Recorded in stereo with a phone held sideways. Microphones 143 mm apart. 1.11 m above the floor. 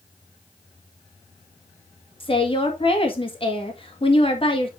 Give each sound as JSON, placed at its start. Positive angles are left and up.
{"t": 2.2, "sound": "a woman speaking", "side_deg": 40, "distance_m": 1.8}